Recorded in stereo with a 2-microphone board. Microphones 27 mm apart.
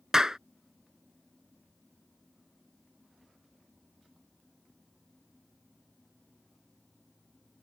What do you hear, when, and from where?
0.1 s a clap: 20° right (ahead or behind)